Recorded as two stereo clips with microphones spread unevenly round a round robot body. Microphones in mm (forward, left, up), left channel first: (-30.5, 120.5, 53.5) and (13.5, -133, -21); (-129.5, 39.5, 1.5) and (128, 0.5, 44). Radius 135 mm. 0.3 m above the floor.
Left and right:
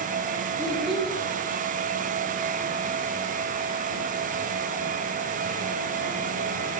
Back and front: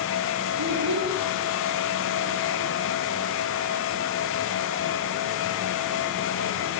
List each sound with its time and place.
0.6 s a child speaking: 10° left, 2.5 m